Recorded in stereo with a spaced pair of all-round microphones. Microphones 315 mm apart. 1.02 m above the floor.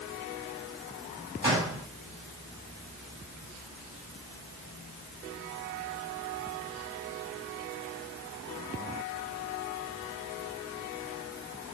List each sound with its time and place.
1.4 s a gunshot: 35° right (ahead or behind), 5 m